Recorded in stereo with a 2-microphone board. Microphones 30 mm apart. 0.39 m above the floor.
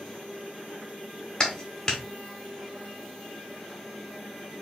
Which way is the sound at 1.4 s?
20° left (ahead or behind).